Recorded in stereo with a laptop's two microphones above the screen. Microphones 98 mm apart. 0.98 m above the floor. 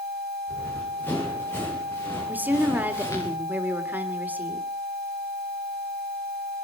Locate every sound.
0.5 s running footsteps: 20° left (ahead or behind), 7.5 m; by 3.3 s 30° left (ahead or behind), 8.5 m
2.3 s a woman speaking: 20° right (ahead or behind), 3.5 m